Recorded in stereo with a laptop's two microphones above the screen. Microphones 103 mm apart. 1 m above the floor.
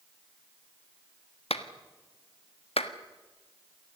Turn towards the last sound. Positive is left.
turn(degrees=80)